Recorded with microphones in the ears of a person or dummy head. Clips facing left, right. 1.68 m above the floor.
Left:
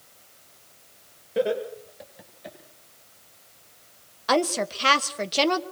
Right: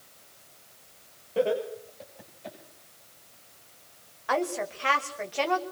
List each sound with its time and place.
1.4 s laughter: 25° left (ahead or behind), 7 m; by 2.6 s 15° left (ahead or behind), 8 m
4.3 s a woman speaking: 55° left (ahead or behind), 1.6 m